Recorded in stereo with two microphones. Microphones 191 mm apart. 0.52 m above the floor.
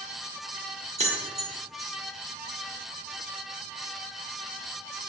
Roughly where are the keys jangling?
Right.